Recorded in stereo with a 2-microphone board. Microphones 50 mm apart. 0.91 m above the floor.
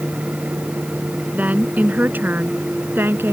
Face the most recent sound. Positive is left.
turn(degrees=-45)  # may be behind; listen again after turning